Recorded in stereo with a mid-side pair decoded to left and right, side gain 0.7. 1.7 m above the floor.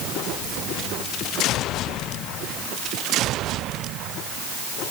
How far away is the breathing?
No breathing in this recording.